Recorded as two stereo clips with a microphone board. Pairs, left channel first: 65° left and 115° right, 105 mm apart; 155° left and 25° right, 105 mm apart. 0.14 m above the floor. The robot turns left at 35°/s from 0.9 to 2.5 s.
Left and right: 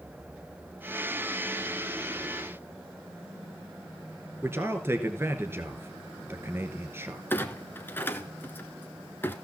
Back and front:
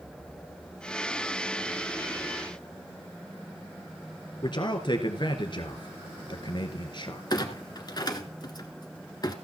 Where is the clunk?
130° left, 1.2 m.